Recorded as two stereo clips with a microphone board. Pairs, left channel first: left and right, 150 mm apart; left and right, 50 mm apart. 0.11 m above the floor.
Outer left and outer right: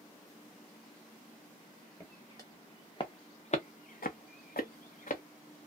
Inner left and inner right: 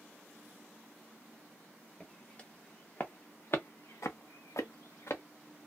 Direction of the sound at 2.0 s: 15° left (ahead or behind).